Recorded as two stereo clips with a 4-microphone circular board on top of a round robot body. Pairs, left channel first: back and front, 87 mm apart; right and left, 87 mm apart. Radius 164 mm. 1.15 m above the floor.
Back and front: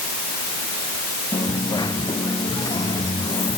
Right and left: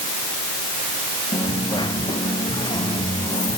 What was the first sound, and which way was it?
A dropped coin, 135° right.